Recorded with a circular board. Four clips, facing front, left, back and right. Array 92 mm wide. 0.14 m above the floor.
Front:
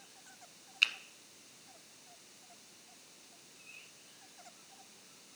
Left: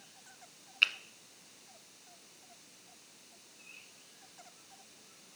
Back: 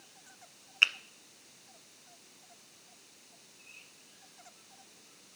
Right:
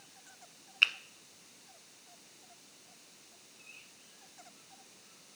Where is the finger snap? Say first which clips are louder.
Right 1 dB, back 5 dB; 165° right, 0.9 m.